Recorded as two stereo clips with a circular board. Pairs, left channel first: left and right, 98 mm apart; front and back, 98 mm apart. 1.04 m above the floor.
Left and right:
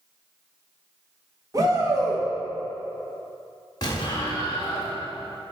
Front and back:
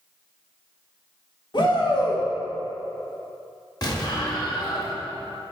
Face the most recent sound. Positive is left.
turn(degrees=45)